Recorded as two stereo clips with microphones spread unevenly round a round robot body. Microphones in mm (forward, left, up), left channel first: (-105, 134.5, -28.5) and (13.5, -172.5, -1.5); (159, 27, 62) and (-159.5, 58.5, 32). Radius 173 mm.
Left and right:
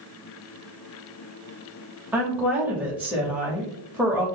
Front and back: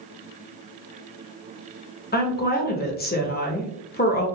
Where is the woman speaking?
20° left, 0.9 m.